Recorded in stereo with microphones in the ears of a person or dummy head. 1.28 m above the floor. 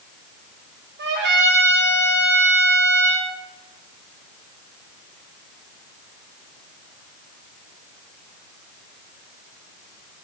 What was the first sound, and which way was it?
A trumpet, 50° right (ahead or behind).